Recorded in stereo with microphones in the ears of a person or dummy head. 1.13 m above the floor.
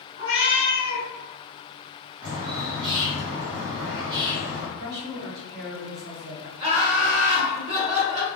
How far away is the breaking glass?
I don't hear breaking glass.